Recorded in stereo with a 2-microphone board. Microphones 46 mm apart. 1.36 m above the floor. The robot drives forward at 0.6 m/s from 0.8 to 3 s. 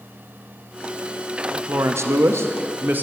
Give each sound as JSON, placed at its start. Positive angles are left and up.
{"t": 1.7, "sound": "a woman speaking", "side_deg": -55, "distance_m": 0.6}